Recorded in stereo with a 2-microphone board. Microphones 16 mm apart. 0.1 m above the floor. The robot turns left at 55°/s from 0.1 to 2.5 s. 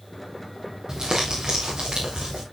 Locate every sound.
0.9 s crumpling: 30° right, 4.5 m; by 2.4 s 115° right, 4.5 m